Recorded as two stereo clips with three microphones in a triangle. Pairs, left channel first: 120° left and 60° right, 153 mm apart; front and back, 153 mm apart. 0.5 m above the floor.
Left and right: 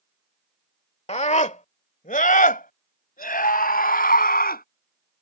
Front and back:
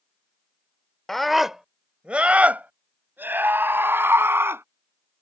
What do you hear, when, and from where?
1.1 s a scream: 85° left; by 4.6 s 105° left